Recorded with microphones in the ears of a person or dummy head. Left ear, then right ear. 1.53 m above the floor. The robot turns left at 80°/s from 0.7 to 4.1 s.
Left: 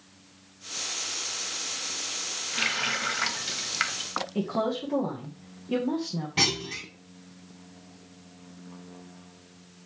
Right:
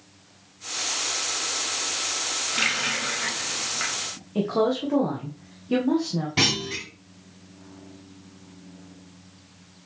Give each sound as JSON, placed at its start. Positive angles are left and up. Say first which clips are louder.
{"t": 2.5, "sound": "a running tap", "louder": "right 2 dB", "azimuth_deg": 180, "distance_m": 1.1}
{"t": 4.3, "sound": "a woman speaking", "louder": "right 7 dB", "side_deg": 0, "distance_m": 1.4}
{"t": 6.4, "sound": "a clunk", "louder": "right 2 dB", "side_deg": 0, "distance_m": 2.5}